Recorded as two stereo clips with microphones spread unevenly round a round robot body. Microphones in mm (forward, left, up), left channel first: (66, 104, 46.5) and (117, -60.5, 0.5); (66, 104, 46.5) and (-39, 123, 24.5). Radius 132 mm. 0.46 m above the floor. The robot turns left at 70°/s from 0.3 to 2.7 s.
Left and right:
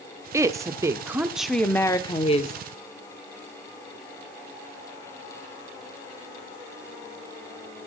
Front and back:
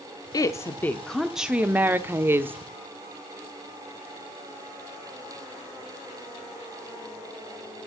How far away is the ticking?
No ticking in this recording.